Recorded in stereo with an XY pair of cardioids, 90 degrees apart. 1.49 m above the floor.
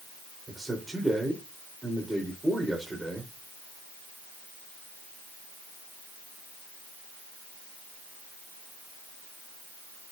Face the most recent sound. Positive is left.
turn(degrees=-20)